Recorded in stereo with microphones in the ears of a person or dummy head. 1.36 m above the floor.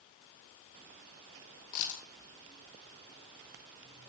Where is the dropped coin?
45° left (ahead or behind), 2.5 m.